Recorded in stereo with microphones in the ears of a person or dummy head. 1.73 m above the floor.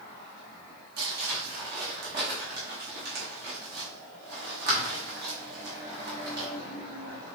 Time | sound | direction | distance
1.0 | crumpling | 50° right (ahead or behind) | 1.9 m